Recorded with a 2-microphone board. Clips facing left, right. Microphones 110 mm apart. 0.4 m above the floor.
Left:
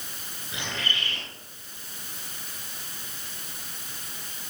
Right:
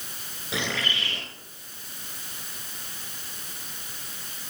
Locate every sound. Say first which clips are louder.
0.5 s a bird: right 4 dB; 85° right, 6.5 m